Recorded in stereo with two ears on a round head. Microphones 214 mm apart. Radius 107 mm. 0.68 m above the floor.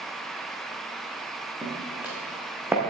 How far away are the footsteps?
About 3.5 m.